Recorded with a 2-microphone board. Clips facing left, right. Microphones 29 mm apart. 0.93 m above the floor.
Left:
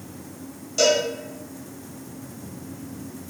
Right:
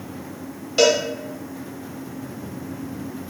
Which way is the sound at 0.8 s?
40° right (ahead or behind).